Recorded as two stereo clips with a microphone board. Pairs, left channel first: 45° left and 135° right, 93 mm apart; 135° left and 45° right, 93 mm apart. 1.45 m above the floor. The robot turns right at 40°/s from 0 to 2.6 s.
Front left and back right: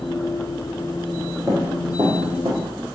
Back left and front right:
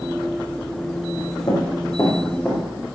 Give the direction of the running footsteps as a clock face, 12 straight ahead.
7 o'clock.